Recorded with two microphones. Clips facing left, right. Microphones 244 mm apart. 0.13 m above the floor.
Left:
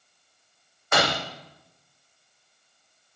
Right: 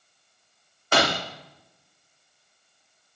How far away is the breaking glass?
About 3.5 m.